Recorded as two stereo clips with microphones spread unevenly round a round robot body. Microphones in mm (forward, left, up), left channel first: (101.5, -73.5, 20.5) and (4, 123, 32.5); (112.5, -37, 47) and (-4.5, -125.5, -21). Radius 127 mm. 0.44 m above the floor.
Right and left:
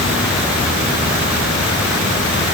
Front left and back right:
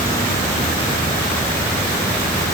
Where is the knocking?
I don't hear knocking.